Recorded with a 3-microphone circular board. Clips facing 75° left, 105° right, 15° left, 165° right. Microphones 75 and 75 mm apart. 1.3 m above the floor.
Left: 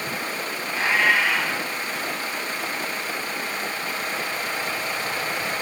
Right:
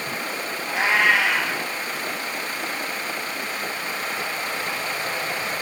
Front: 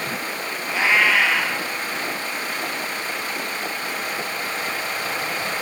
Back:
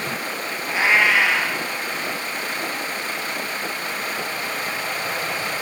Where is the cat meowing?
95° right, 3.5 m.